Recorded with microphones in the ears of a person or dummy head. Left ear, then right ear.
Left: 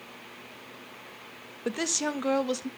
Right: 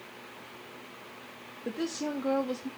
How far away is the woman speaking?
About 0.7 m.